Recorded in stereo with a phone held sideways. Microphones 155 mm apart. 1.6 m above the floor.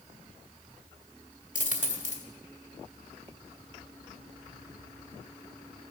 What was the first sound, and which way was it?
A dropped coin, 55° left (ahead or behind).